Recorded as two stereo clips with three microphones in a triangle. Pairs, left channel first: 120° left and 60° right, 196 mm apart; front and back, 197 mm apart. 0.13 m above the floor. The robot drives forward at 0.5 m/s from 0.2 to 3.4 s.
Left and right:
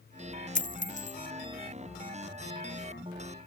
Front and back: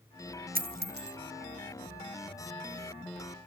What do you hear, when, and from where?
0.6 s a dropped coin: 155° left, 0.7 m; by 1.2 s 165° left, 1.0 m